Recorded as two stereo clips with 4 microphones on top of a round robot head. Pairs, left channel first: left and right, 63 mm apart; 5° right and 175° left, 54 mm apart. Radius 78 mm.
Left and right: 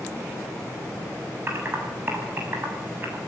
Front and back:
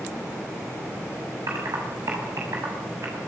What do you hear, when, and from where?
1.5 s typing on a keyboard: 145° right, 7.5 m